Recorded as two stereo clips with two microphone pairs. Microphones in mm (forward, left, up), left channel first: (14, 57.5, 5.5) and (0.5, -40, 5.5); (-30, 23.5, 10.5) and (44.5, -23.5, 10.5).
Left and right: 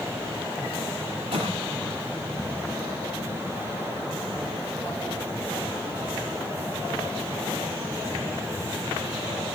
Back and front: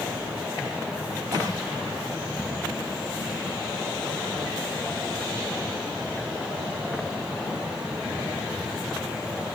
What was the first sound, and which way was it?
A cough, 80° right.